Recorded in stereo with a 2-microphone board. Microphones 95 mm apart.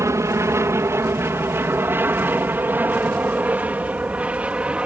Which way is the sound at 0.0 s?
30° right (ahead or behind).